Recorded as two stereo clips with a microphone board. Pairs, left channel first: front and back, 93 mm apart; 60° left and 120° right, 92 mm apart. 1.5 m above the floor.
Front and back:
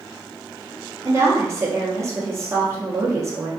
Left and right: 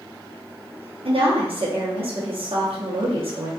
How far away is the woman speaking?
About 0.8 m.